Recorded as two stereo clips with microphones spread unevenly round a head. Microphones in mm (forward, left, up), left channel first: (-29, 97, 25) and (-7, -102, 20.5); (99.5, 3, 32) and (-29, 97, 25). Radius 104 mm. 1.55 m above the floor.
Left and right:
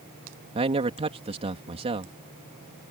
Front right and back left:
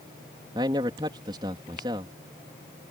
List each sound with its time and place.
0.6 s a man speaking: 145° right